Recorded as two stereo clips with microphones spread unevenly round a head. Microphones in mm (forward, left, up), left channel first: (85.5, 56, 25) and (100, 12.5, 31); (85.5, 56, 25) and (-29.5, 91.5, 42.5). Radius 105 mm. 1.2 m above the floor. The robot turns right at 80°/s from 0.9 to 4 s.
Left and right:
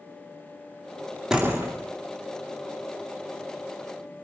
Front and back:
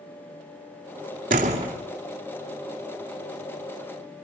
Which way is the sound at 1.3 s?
160° right.